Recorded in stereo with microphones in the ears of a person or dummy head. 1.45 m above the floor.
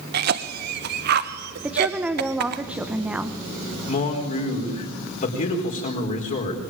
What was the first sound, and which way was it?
A cough, 55° right (ahead or behind).